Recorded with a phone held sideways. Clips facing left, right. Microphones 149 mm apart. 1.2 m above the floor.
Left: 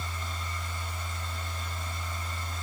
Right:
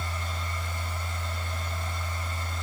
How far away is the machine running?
About 3.5 m.